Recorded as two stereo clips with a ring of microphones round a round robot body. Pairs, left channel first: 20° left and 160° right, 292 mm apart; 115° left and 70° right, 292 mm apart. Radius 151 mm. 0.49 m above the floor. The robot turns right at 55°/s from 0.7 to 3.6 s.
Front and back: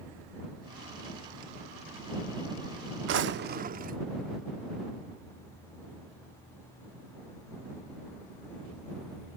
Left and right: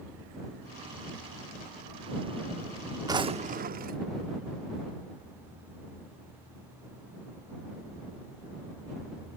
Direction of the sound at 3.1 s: 140° right.